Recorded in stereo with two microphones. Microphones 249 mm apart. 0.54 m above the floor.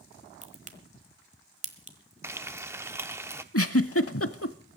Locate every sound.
0.4 s a crack: 30° right (ahead or behind), 1.3 m
2.2 s frying: 10° right (ahead or behind), 0.7 m
3.5 s a giggle: 65° left (ahead or behind), 0.7 m